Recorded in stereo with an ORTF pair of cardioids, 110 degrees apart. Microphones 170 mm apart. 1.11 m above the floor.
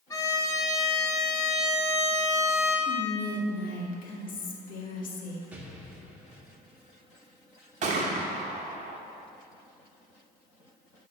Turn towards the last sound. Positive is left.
turn(degrees=-45)